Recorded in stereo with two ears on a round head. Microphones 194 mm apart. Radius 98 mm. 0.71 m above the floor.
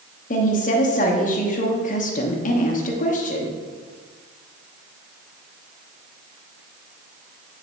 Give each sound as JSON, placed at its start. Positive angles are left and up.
{"t": 0.3, "sound": "a woman speaking", "side_deg": 40, "distance_m": 0.9}